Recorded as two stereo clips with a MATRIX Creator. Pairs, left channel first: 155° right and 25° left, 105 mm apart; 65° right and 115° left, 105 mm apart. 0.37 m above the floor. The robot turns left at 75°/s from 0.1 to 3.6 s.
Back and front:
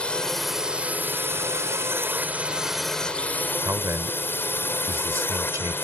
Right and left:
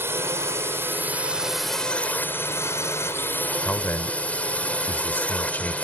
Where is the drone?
135° left; by 5.8 s 125° right.